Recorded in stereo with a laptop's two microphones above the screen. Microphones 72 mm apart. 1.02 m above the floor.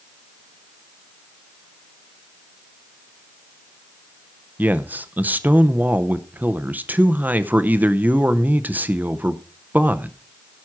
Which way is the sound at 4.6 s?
25° right (ahead or behind).